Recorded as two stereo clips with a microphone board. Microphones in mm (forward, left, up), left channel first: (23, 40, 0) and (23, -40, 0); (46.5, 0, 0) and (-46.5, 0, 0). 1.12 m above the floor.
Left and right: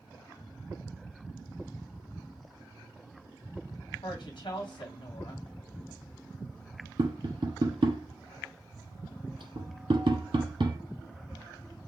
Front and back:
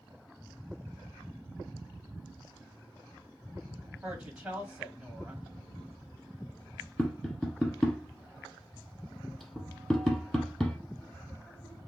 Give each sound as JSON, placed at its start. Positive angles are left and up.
{"t": 4.0, "sound": "a woman speaking", "azimuth_deg": 100, "distance_m": 2.5}
{"t": 7.0, "sound": "tapping", "azimuth_deg": -90, "distance_m": 1.6}